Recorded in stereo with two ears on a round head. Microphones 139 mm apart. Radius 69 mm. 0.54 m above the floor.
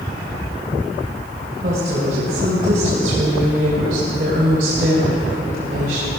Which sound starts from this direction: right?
A woman speaking, at 1.6 s.